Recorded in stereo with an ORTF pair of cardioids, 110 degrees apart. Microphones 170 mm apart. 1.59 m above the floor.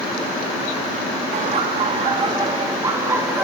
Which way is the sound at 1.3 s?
50° right.